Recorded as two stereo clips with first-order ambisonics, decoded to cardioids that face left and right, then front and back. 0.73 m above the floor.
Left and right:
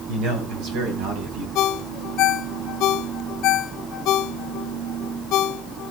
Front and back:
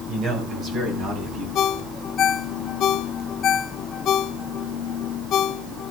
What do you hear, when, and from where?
0.1 s a man speaking: 115° right, 3.5 m
1.6 s a ringtone: 50° left, 0.5 m